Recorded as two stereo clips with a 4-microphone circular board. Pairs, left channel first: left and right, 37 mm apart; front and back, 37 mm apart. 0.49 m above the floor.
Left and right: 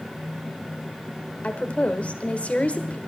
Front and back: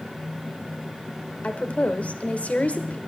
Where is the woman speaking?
40° left, 1.3 m.